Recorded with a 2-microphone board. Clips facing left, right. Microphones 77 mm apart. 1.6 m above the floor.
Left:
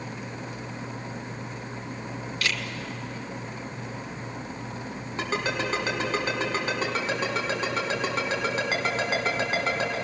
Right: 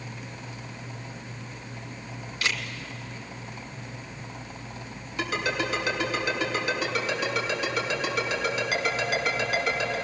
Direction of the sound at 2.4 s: 20° right (ahead or behind).